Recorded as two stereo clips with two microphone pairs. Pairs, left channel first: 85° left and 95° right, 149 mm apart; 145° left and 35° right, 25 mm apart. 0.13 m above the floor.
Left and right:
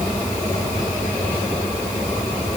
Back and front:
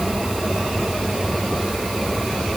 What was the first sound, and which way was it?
Only background noise.